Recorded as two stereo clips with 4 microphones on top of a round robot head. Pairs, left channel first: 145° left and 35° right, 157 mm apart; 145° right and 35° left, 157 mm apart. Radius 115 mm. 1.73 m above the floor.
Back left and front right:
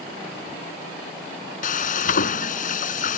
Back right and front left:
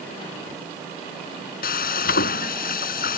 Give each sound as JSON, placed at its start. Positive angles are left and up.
{"t": 1.6, "sound": "frying", "azimuth_deg": -175}